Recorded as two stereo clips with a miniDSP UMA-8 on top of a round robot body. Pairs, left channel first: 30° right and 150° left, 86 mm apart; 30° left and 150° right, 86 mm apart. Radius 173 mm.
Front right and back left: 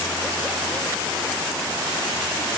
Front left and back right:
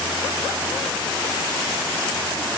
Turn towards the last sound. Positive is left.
No sound to turn to.